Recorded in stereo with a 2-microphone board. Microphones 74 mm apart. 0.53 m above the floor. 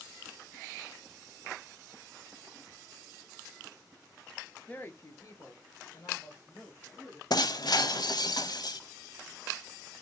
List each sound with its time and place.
4.7 s a woman speaking: 20° left (ahead or behind), 0.7 m; by 7.2 s 35° left (ahead or behind), 3 m
7.3 s breaking glass: 60° left (ahead or behind), 0.5 m